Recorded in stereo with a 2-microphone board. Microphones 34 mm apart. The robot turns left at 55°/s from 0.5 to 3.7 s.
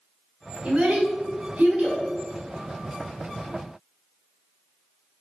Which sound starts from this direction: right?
A child speaking, at 0.6 s.